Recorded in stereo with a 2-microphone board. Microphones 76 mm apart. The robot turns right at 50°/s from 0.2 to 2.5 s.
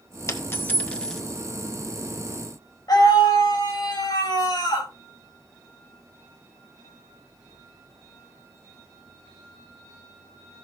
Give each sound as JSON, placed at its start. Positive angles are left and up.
{"t": 0.3, "sound": "a dropped coin", "side_deg": 40, "distance_m": 1.5}
{"t": 2.9, "sound": "a scream", "side_deg": 60, "distance_m": 7.0}